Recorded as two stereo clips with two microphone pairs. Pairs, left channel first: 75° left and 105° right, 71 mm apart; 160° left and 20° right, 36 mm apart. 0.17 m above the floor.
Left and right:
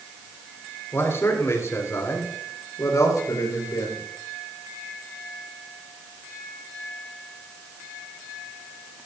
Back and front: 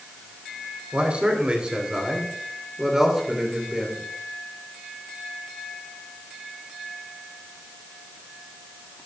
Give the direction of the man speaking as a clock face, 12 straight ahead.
11 o'clock.